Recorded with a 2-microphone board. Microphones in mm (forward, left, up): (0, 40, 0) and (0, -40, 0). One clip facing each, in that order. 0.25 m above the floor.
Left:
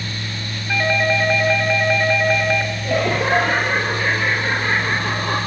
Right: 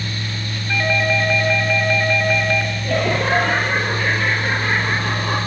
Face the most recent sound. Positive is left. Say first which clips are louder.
# left 1 dB
turn(degrees=5)  # may be behind; listen again after turning